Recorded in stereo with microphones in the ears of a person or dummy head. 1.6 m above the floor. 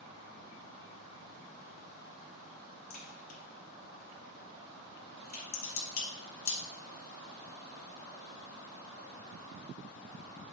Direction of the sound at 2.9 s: 45° left (ahead or behind).